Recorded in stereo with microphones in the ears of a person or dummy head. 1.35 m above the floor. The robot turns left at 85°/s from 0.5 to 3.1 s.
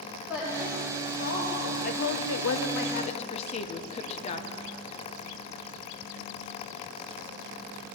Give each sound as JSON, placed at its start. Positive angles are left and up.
{"t": 0.3, "sound": "a woman speaking", "side_deg": -5, "distance_m": 4.0}
{"t": 1.8, "sound": "a woman speaking", "azimuth_deg": 140, "distance_m": 0.9}